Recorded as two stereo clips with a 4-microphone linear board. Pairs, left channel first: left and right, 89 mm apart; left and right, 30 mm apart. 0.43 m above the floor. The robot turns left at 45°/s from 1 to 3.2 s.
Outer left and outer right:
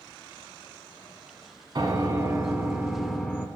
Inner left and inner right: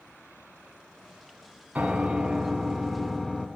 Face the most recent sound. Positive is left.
turn(degrees=175)